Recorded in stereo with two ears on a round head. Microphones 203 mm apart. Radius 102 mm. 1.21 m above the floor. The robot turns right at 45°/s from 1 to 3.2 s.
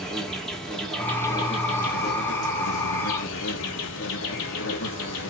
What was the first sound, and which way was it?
An insect, 5° left.